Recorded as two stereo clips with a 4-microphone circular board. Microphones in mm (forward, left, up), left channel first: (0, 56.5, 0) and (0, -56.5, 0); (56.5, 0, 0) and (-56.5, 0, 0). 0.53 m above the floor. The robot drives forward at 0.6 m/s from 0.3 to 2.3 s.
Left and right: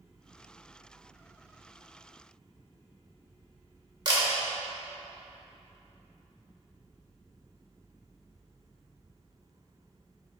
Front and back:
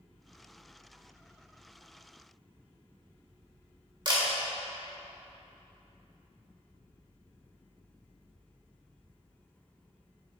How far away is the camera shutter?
About 1.5 m.